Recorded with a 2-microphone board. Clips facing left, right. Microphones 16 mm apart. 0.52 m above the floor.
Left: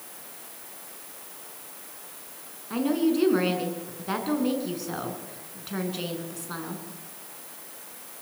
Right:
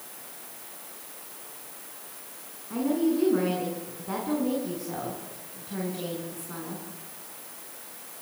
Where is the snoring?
No snoring in this recording.